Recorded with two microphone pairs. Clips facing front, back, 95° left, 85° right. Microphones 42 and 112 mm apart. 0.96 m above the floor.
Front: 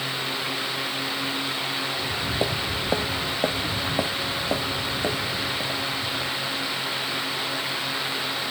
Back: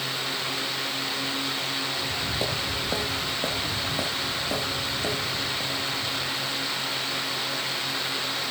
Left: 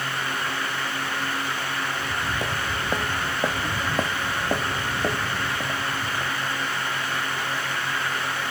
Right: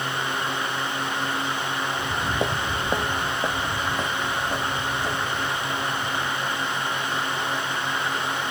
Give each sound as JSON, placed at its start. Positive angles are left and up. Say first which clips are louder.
{"t": 1.9, "sound": "footsteps", "louder": "front 3 dB, right 3 dB", "azimuth_deg": -60, "distance_m": 1.4}